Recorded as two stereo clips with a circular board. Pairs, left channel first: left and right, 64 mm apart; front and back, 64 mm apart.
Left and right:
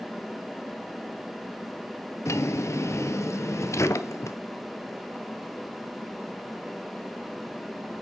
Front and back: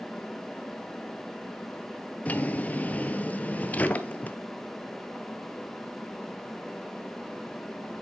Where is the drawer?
60° left, 0.9 m.